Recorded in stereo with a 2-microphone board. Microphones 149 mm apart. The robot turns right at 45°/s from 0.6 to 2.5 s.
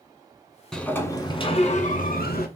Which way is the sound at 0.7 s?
5° left.